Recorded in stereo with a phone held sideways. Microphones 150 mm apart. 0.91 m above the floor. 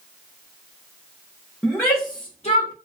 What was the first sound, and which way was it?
A shout, 5° left (ahead or behind).